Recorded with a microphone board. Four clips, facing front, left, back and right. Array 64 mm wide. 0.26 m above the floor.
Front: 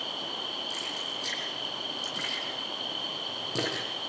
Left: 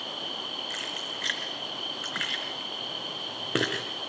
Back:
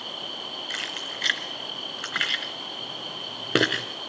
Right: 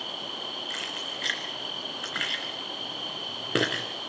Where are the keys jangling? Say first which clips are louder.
Even, back 3 dB; straight behind, 2.5 m.